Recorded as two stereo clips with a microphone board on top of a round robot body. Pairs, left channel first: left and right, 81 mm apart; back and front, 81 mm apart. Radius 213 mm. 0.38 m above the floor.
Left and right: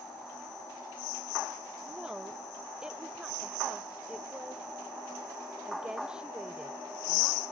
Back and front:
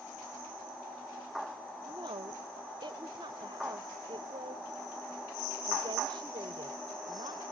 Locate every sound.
1.9 s a woman speaking: 10° right